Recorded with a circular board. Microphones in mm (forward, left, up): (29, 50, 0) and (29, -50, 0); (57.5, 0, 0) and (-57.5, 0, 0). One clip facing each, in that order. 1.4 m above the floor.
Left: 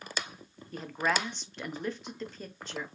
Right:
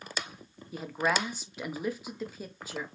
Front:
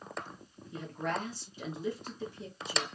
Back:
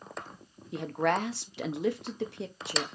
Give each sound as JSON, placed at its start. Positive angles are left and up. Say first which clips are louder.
{"t": 0.7, "sound": "a woman speaking", "louder": "right 1 dB, back 7 dB", "azimuth_deg": -170, "distance_m": 0.7}